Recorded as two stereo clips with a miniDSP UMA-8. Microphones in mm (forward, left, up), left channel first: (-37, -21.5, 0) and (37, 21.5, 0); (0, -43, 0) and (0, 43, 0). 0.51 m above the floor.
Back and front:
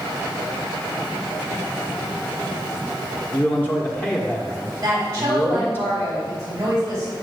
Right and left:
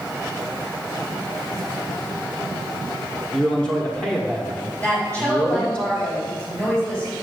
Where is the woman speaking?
20° right, 3.5 m.